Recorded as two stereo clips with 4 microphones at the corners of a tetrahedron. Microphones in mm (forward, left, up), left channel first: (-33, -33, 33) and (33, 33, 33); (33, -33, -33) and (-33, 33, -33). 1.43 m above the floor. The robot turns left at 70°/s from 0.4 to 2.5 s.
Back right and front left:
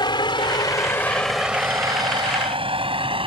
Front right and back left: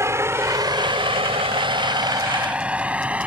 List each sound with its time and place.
0.0 s a vehicle: 170° right; by 3.3 s 60° left